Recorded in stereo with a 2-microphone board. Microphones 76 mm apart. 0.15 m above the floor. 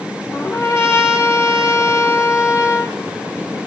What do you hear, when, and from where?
0.3 s a trumpet: 35° left (ahead or behind), 3 m